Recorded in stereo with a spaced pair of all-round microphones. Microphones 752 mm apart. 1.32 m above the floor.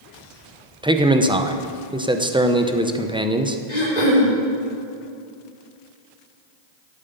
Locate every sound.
0.8 s a man speaking: 5° right (ahead or behind), 0.6 m
3.7 s throat clearing: 65° left (ahead or behind), 3.5 m